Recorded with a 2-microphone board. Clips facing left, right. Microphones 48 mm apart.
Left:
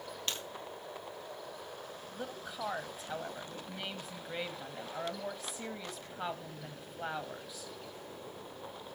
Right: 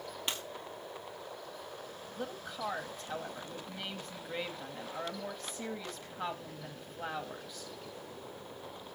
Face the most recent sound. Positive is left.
turn(degrees=5)  # may be behind; listen again after turning